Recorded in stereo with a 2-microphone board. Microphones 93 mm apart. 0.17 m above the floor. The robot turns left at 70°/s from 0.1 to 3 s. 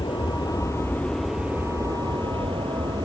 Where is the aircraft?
80° left; by 3.0 s 125° right.